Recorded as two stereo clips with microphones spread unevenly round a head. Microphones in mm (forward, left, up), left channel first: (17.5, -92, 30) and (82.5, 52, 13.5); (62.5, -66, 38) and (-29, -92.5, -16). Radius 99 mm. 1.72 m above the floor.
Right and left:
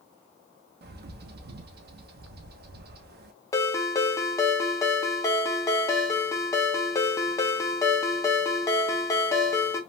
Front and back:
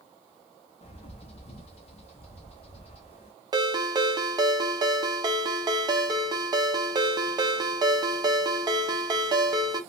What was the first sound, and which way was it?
A bird, 40° left.